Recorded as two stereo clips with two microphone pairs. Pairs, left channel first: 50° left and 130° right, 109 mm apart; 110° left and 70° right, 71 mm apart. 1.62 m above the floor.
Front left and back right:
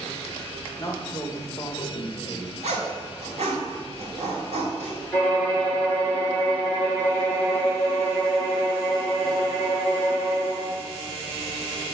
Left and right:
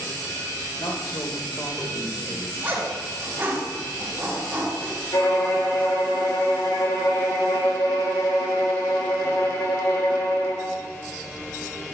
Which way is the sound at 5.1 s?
125° left.